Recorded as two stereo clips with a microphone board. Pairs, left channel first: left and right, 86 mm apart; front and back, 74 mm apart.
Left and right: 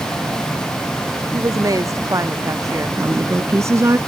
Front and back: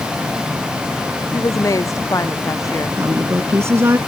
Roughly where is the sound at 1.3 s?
Ahead right.